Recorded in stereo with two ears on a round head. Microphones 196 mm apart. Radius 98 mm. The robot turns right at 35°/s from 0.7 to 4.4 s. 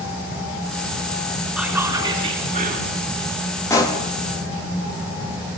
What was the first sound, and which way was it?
Whispering, 175° right.